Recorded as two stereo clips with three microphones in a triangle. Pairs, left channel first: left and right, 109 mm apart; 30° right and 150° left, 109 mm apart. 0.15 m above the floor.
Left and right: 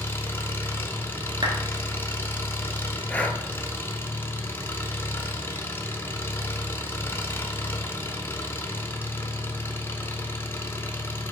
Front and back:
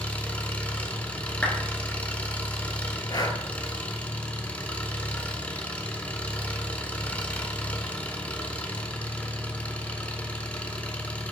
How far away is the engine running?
About 0.8 m.